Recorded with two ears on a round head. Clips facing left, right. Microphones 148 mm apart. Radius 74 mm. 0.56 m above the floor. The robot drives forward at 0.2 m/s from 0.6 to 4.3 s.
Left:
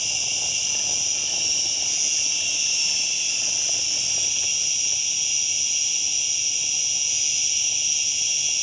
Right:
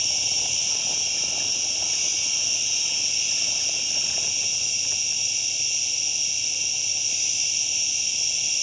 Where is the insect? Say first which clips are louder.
Even; 55° left (ahead or behind), 1.4 m; by 8.6 s 85° left, 1.2 m.